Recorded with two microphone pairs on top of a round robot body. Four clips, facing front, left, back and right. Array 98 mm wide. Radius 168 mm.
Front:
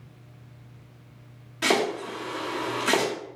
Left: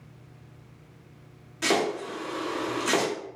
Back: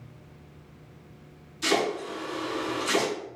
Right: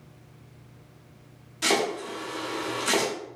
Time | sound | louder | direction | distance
1.6 | chopping | even, front 2 dB | 20° left | 1.8 m